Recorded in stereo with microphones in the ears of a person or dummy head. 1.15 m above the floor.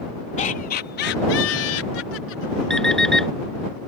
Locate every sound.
0.4 s laughter: 40° left (ahead or behind); by 2.8 s 70° left (ahead or behind)
2.7 s an alarm clock: 5° left (ahead or behind)